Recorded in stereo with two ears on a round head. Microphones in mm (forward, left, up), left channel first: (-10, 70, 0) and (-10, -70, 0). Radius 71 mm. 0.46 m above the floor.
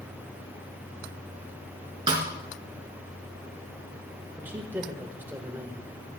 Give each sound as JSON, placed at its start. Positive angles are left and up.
{"t": 2.1, "sound": "a snare drum", "side_deg": -30, "distance_m": 1.7}
{"t": 4.4, "sound": "a man speaking", "side_deg": -10, "distance_m": 1.3}